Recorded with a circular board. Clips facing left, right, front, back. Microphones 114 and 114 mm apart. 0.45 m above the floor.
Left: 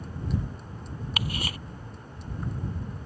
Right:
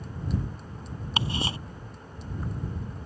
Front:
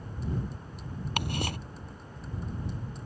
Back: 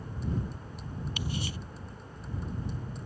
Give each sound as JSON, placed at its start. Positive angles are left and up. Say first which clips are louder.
{"t": 1.2, "sound": "ticking", "louder": "right 4 dB, front 5 dB", "azimuth_deg": -30}